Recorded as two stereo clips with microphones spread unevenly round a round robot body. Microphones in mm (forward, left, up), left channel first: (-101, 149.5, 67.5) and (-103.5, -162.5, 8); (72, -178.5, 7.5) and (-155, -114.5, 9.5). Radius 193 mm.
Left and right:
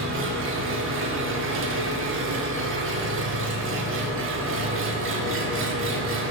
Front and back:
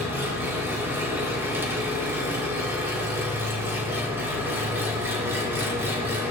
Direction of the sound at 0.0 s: 115° right.